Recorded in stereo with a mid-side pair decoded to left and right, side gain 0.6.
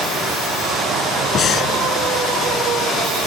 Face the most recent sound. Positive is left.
turn(degrees=45)